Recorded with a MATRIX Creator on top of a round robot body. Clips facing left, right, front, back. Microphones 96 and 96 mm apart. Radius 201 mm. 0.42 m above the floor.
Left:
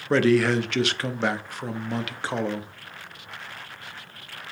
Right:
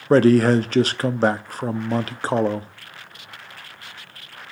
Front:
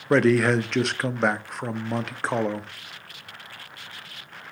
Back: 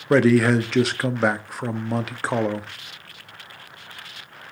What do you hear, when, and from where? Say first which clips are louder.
0.1 s a man speaking: right 5 dB, back 2 dB; 95° right, 0.8 m